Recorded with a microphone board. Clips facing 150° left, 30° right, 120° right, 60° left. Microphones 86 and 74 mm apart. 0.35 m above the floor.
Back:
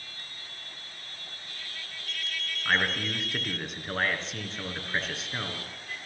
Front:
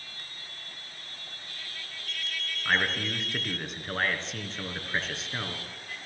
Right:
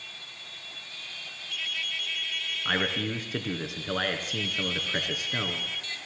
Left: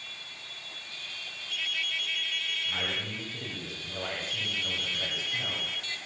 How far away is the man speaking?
About 4 m.